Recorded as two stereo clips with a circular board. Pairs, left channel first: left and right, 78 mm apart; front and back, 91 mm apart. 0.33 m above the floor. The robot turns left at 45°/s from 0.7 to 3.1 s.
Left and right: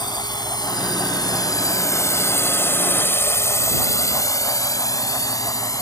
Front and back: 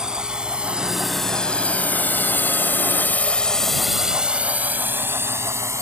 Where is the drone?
95° left; by 5.8 s 125° left.